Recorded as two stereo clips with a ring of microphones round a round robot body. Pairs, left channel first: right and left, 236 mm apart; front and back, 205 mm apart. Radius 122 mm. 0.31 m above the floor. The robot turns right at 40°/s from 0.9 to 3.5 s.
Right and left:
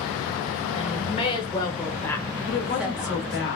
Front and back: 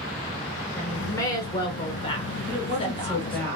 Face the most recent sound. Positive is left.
turn(degrees=-75)